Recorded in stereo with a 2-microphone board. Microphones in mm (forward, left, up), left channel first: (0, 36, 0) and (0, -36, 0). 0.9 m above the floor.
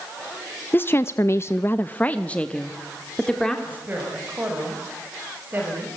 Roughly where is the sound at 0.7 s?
Left.